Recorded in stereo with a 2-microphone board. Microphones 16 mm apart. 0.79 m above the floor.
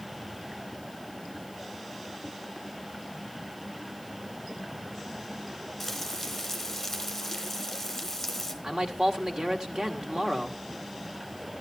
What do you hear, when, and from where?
5.8 s frying: 5° left (ahead or behind), 3 m
8.6 s a man speaking: 60° right (ahead or behind), 1.7 m